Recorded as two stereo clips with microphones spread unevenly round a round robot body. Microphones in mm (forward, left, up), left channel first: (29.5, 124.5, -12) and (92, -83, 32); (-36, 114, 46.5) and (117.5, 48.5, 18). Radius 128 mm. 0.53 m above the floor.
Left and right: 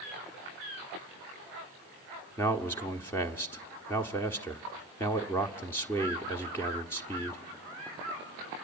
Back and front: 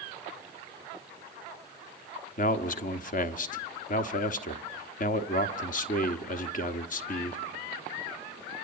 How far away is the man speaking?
About 1.3 m.